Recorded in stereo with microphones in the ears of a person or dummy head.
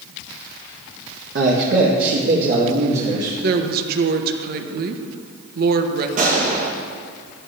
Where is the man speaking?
55° right (ahead or behind), 1.2 m; by 3.3 s 70° right (ahead or behind), 2.5 m.